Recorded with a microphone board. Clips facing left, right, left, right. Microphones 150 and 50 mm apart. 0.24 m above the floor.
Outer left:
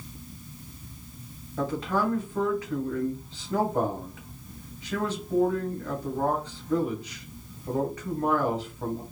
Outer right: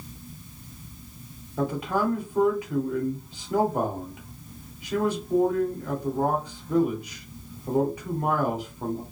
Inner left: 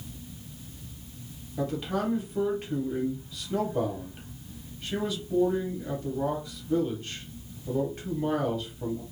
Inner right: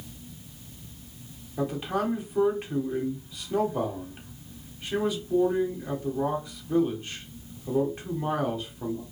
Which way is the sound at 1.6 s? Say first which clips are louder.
Outer right 1 dB, inner right 1 dB; 10° right (ahead or behind).